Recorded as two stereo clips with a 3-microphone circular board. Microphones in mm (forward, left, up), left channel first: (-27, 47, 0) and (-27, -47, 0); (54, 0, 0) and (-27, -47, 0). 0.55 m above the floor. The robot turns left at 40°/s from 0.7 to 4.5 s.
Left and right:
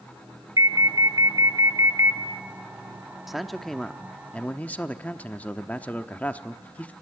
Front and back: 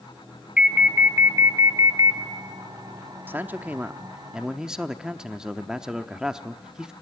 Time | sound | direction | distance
0.6 | an alarm | 75° right | 0.9 m
3.3 | a man speaking | 170° right | 0.7 m